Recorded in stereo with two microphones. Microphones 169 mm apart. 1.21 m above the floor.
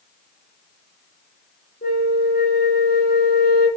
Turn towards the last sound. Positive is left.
turn(degrees=60)  # may be behind; listen again after turning